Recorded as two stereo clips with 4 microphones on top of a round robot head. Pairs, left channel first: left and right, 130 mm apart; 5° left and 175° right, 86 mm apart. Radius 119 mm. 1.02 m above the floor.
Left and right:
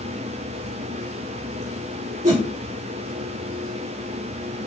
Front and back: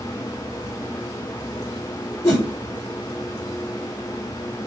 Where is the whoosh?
60° right, 3.5 m.